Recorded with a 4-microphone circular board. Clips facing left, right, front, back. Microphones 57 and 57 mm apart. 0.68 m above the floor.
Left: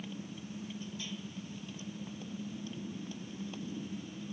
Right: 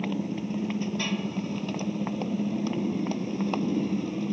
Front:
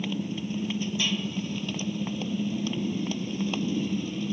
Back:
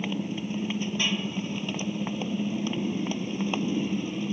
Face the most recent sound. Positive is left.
turn(degrees=-110)